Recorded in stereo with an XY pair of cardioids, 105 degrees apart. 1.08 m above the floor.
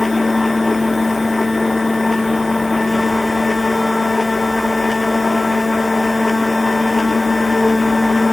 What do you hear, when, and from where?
0.0 s a machine running: 15° left